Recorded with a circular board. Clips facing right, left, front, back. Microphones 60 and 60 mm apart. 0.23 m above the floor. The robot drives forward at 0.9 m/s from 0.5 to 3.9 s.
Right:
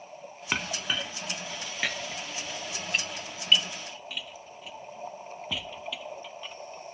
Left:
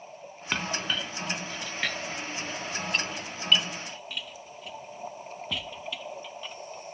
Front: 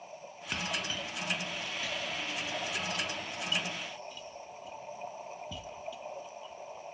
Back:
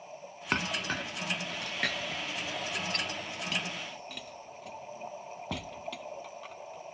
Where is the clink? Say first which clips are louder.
Left 1 dB, back 4 dB; 170° right; by 6.9 s 175° right.